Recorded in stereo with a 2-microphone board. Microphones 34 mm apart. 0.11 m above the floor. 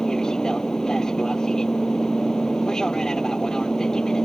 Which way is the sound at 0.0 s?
20° left (ahead or behind).